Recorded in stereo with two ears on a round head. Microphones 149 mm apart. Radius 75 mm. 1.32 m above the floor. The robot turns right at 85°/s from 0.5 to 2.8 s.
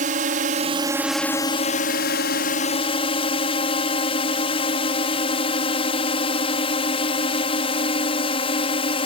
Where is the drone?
55° right; by 9.1 s 140° left.